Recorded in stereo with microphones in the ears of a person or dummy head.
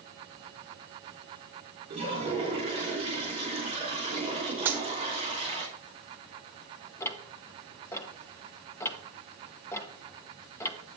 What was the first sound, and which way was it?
A toilet flushing, 30° right (ahead or behind).